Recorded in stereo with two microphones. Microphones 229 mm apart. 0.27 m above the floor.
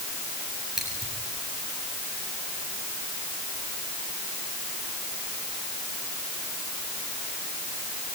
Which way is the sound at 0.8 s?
Centre (ahead or behind).